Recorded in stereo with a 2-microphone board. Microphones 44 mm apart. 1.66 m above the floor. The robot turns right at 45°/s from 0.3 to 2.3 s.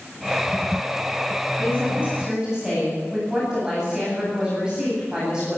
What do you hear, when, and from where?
1.6 s a woman speaking: 50° right, 9.5 m; by 5.6 s 20° right, 9.5 m